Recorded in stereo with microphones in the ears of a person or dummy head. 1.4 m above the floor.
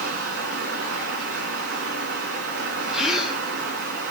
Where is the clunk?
No clunk in this recording.